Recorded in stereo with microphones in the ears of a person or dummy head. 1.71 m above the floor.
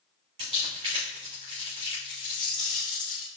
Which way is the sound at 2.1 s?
5° left (ahead or behind).